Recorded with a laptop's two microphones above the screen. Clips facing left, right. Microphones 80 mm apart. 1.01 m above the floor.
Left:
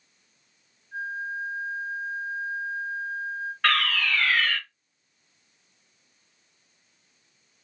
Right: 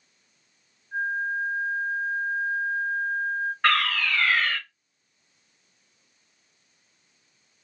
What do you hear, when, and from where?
0.9 s a flute: 40° right (ahead or behind), 1.1 m
3.6 s a fire alarm: 10° right (ahead or behind), 1.8 m